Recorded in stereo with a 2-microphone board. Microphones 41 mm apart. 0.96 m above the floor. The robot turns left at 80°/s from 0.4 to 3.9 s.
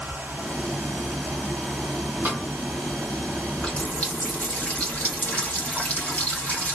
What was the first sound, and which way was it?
A snare drum, 55° right (ahead or behind).